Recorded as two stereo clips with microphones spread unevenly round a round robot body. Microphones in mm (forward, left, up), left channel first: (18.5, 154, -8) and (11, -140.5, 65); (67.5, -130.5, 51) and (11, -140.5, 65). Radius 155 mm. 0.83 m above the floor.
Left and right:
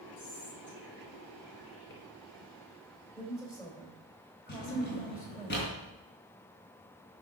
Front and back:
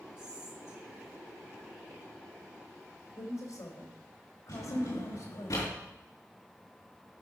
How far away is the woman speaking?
About 3.5 m.